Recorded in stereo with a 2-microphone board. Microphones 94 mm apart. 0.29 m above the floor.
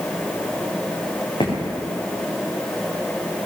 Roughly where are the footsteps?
Left.